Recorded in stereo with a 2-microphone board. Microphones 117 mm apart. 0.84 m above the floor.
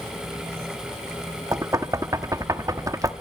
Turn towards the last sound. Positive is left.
turn(degrees=-30)  # may be behind; listen again after turning